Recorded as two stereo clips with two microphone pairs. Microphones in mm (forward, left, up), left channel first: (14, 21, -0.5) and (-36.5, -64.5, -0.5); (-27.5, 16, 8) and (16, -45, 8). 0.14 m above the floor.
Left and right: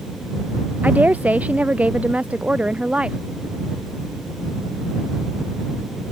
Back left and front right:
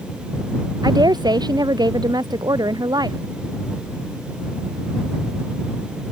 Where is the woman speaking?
50° right; by 3.2 s 45° right.